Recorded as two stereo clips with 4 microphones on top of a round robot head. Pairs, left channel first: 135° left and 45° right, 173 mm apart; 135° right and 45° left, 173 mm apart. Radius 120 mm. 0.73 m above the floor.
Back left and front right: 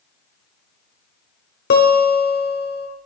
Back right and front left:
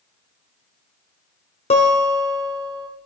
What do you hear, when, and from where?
1.7 s a guitar: 170° left, 1.4 m